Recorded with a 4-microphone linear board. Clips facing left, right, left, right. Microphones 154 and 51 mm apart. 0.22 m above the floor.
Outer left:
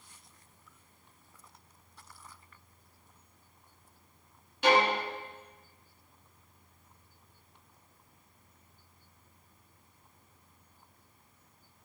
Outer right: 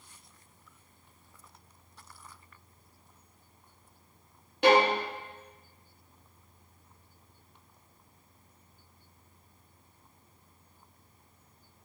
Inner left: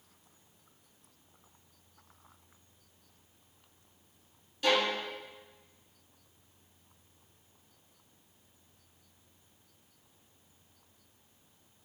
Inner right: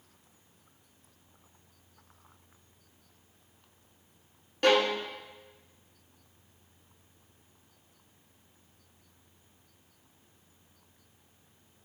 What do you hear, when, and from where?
4.6 s a violin: 55° right (ahead or behind), 0.6 m